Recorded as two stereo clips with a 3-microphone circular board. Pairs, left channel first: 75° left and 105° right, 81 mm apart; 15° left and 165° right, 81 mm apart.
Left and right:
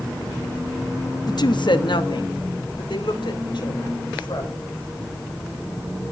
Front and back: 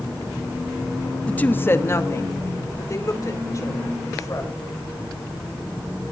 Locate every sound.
1.3 s a woman speaking: 90° left, 0.6 m; by 4.5 s 60° left, 3.5 m